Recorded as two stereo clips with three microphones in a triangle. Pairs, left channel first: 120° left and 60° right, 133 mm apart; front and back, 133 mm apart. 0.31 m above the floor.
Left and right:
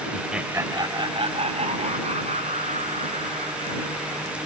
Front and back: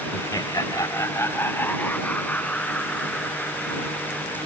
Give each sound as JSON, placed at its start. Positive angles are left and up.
{"t": 0.1, "sound": "laughter", "azimuth_deg": 35}